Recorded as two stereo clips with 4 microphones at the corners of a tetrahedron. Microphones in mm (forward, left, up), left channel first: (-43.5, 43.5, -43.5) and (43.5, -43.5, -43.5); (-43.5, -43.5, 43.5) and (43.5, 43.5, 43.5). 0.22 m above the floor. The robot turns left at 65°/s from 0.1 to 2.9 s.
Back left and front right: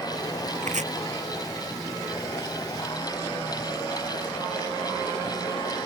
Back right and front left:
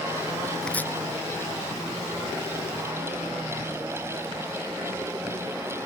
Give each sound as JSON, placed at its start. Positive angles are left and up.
{"t": 0.6, "sound": "chopping", "azimuth_deg": -45}